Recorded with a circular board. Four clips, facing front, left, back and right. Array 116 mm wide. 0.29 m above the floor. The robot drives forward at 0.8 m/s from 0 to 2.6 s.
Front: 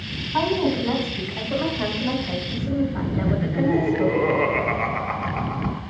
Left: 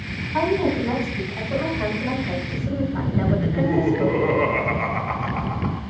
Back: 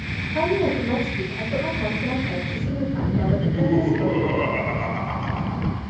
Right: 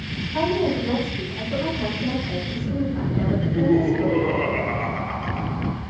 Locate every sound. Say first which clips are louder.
0.3 s a woman speaking: left 1 dB, even; 20° left, 2.5 m; by 4.3 s 60° left, 1.4 m
3.3 s laughter: right 4 dB, front 1 dB; 30° left, 1.3 m